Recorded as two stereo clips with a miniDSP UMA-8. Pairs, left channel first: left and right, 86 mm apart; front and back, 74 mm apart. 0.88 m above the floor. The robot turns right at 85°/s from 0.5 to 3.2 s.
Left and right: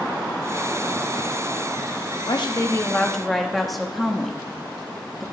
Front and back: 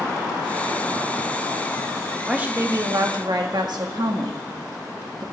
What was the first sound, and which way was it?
A woman speaking, 100° left.